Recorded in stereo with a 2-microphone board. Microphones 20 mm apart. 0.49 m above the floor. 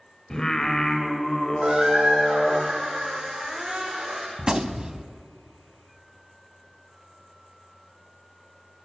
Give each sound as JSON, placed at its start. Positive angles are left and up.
{"t": 0.3, "sound": "singing", "side_deg": 30, "distance_m": 2.5}
{"t": 1.6, "sound": "a squeak", "side_deg": -65, "distance_m": 5.0}
{"t": 4.4, "sound": "a gunshot", "side_deg": -40, "distance_m": 1.0}